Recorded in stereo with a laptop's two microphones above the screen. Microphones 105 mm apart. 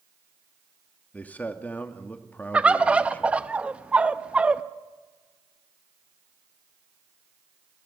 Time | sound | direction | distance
1.1 | a man speaking | 15° left (ahead or behind) | 2.0 m
2.5 | a bird | 10° right (ahead or behind) | 0.8 m